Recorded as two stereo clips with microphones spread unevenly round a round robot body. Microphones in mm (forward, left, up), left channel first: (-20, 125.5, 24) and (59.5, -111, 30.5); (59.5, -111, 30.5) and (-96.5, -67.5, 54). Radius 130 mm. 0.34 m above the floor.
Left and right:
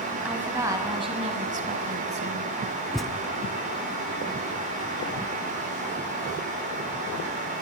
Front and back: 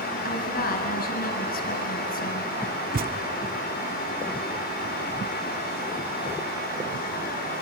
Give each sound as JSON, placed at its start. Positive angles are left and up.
{"t": 0.2, "sound": "a woman speaking", "azimuth_deg": 15, "distance_m": 2.0}
{"t": 2.9, "sound": "a thud", "azimuth_deg": -160, "distance_m": 1.1}